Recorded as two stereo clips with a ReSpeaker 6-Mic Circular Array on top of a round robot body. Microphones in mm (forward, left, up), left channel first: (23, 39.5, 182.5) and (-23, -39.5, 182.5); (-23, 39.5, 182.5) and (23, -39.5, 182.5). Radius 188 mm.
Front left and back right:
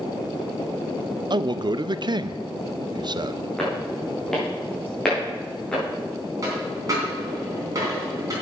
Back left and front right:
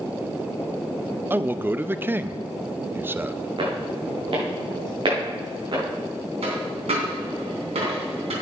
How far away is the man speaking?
About 0.7 m.